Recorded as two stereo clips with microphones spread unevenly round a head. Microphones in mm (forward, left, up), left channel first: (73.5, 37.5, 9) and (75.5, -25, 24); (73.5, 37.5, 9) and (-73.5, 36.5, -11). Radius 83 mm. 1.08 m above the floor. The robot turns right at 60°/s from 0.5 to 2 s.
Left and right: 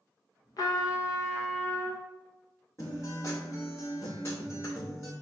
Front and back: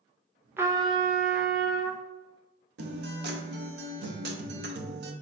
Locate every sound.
0.6 s a trumpet: 105° left, 0.6 m; by 2.0 s 170° right, 0.6 m
2.8 s a guitar: 170° left, 0.8 m